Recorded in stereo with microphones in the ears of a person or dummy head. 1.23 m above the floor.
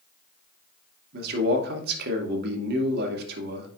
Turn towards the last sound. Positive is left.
turn(degrees=-55)  # may be behind; listen again after turning